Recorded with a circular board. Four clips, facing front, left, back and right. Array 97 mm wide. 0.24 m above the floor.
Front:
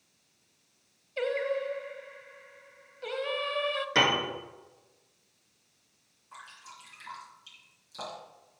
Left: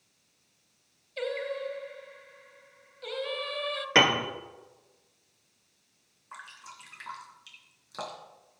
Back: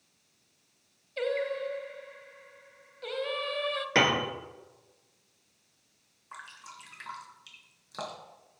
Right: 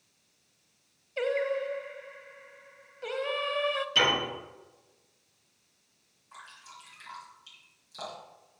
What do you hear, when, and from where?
1.2 s singing: 65° right, 0.7 m
4.0 s a piano: 110° left, 2 m
6.3 s dripping: 135° left, 3 m